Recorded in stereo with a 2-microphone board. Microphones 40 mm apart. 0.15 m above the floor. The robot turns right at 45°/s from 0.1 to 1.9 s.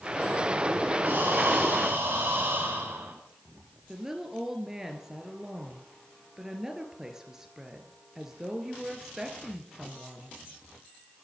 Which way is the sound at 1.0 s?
100° right.